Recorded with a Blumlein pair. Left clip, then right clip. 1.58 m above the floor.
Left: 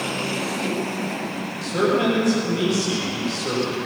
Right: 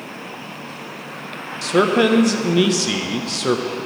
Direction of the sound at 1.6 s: 60° right.